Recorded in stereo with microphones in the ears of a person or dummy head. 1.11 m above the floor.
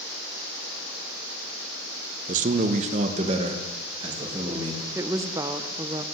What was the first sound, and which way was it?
A man speaking, 40° right (ahead or behind).